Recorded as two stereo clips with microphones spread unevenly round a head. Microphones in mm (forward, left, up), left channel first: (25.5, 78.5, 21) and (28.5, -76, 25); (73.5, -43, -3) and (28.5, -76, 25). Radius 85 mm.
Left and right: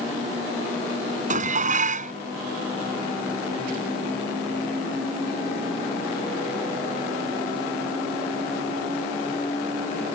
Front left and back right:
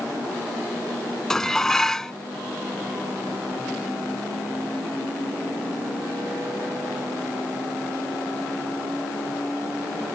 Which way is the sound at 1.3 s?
50° right.